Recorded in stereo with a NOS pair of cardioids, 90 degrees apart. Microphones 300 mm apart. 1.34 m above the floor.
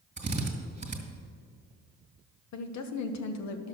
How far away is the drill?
About 2 m.